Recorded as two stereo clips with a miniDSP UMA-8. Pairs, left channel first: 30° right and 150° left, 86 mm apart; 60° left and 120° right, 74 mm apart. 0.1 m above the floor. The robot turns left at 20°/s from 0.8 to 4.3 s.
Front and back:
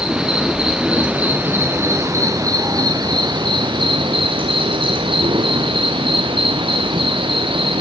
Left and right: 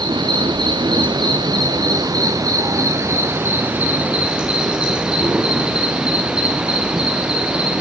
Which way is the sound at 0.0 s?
130° right.